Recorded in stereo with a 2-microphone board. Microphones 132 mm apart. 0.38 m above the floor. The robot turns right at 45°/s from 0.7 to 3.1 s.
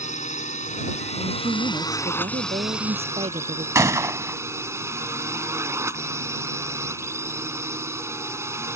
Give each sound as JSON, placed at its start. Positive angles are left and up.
{"t": 0.0, "sound": "a drone", "azimuth_deg": 95}
{"t": 1.2, "sound": "a woman speaking", "azimuth_deg": -140}
{"t": 3.8, "sound": "a gunshot", "side_deg": -25}